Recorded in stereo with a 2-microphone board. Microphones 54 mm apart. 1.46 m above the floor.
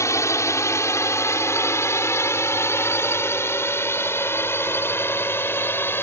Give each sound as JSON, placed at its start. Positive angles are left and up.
{"t": 0.0, "sound": "a drone", "side_deg": 60}